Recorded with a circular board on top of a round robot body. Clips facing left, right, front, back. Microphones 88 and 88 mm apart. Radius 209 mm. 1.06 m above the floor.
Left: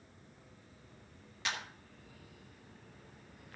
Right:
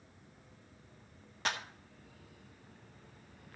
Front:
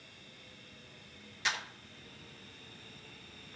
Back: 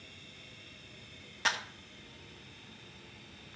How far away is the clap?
About 1.6 m.